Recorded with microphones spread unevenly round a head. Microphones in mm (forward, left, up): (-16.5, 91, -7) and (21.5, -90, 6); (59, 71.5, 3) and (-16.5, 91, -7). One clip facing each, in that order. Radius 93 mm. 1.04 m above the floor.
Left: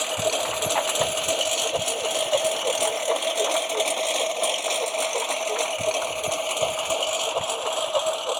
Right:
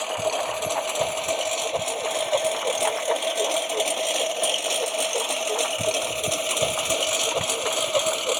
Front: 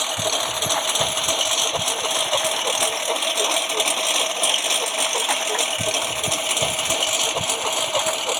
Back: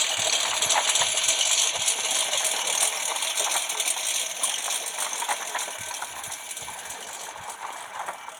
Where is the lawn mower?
30° left; by 8.4 s 20° right.